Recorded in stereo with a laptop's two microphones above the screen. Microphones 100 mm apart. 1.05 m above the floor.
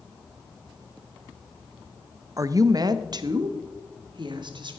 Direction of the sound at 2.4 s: 35° right (ahead or behind).